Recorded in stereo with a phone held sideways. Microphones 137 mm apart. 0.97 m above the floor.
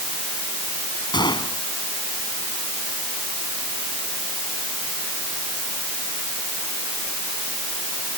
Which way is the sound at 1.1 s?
35° left (ahead or behind).